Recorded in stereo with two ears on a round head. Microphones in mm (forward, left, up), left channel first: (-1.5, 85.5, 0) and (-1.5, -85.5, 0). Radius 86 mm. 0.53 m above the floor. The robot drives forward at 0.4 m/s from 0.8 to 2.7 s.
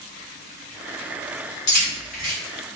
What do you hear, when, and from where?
1.7 s keys jangling: 55° left (ahead or behind), 1.9 m; by 2.3 s 50° left (ahead or behind), 2 m